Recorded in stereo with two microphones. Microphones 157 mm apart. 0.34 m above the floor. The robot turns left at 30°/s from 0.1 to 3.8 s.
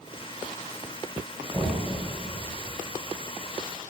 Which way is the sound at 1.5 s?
20° left (ahead or behind).